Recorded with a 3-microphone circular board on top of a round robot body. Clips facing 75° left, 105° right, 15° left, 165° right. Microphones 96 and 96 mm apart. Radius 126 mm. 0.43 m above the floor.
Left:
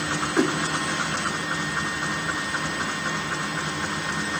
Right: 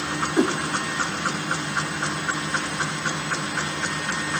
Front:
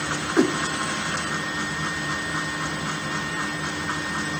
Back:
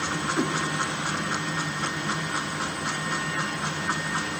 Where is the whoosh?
25° right, 0.6 m.